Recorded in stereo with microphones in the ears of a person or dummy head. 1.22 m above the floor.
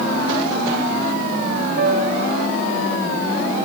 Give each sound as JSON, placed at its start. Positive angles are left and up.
{"t": 1.8, "sound": "a piano", "side_deg": -55, "distance_m": 1.4}